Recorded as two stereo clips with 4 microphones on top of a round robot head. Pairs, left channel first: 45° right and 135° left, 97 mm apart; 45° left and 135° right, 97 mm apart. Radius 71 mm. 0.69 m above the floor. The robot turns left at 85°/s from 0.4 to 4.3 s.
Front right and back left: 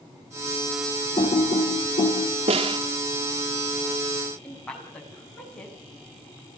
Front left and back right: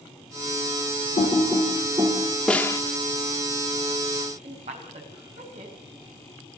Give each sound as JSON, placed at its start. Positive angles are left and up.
{"t": 1.2, "sound": "typing on a keyboard", "azimuth_deg": 5, "distance_m": 6.0}
{"t": 2.5, "sound": "a snare drum", "azimuth_deg": 125, "distance_m": 1.7}
{"t": 4.4, "sound": "a woman speaking", "azimuth_deg": -125, "distance_m": 5.0}